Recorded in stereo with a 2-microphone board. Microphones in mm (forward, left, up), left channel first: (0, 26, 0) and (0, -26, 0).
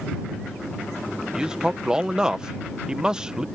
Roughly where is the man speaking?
Centre.